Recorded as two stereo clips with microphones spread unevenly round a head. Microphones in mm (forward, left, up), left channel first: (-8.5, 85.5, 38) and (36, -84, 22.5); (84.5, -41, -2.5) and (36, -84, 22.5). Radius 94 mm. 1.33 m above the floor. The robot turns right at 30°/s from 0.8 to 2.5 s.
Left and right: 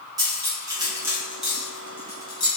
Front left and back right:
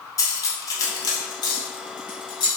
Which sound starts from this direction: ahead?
Cutlery clinking, at 0.2 s.